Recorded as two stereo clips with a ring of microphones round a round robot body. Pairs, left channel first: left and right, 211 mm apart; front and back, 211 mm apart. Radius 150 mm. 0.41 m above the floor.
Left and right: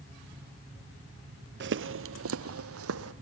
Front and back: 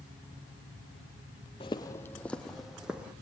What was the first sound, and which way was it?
Footsteps, 70° right.